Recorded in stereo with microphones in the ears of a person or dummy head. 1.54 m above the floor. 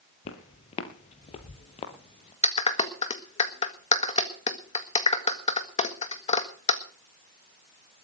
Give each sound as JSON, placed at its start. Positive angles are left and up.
{"t": 0.2, "sound": "footsteps", "side_deg": 30, "distance_m": 1.7}
{"t": 2.4, "sound": "a clap", "side_deg": 30, "distance_m": 1.6}